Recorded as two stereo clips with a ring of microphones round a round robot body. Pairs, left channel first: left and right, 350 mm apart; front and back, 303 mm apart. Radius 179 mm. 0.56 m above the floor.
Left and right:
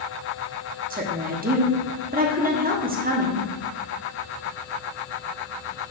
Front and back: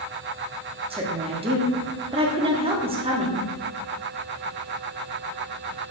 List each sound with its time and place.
0.9 s a woman speaking: 125° right, 0.9 m